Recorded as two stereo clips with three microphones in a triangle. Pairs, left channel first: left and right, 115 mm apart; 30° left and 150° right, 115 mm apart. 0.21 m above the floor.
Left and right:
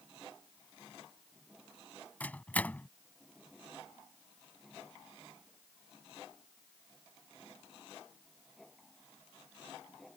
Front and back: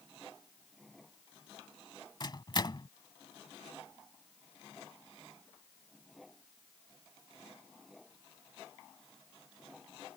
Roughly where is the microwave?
Ahead left.